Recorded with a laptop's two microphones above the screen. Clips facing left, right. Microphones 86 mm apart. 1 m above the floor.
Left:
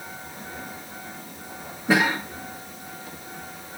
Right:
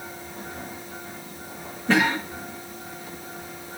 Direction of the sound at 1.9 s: 10° left (ahead or behind).